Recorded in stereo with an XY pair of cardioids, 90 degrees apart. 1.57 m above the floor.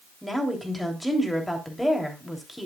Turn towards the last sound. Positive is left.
turn(degrees=5)